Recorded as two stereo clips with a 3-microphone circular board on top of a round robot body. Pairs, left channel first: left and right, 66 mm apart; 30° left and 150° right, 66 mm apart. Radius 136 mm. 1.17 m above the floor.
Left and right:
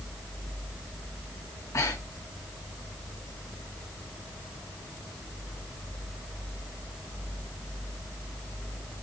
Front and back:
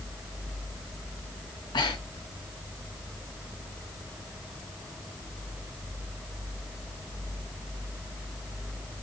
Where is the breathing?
40° left, 1.3 m.